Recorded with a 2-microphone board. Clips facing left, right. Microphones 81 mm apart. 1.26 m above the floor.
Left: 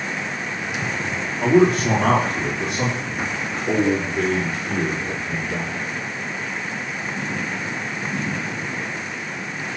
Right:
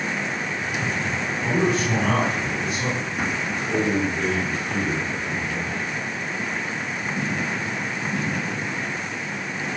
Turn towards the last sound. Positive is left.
turn(degrees=85)